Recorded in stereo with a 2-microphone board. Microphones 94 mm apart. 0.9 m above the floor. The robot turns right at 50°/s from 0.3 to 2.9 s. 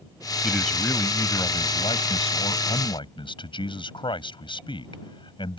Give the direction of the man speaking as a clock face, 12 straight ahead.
12 o'clock.